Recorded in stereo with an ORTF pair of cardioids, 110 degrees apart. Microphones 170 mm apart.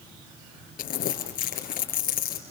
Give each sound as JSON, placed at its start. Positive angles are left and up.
{"t": 0.8, "sound": "crumpling", "azimuth_deg": 55, "distance_m": 6.0}